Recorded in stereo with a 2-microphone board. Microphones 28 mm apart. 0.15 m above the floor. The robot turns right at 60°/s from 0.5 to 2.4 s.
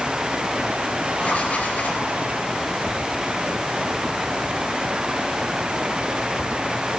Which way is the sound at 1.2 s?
50° left.